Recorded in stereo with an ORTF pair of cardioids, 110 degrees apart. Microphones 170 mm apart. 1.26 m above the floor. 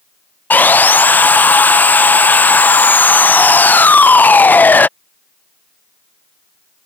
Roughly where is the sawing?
Ahead.